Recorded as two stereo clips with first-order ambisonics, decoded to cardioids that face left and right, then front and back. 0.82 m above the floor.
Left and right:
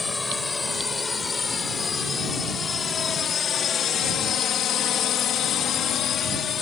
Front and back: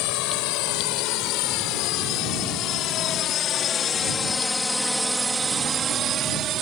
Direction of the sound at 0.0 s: 15° left.